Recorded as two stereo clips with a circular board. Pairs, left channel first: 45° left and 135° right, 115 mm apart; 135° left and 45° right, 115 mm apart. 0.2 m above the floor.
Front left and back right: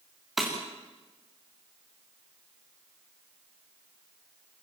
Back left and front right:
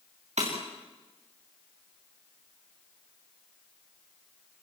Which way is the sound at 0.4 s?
45° right.